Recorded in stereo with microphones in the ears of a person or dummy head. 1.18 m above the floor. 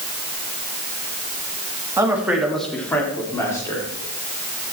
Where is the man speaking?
15° right (ahead or behind), 1.6 m; by 3.9 s 20° left (ahead or behind), 3 m.